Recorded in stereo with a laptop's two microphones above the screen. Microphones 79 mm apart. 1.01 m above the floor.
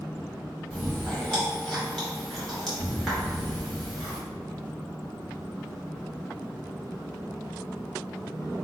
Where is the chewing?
5° left (ahead or behind), 0.8 m.